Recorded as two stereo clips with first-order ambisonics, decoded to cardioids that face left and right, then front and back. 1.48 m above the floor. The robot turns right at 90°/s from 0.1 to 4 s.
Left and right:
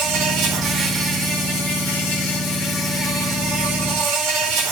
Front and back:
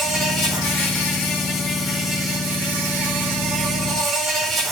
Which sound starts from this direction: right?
An insect, at 0.0 s.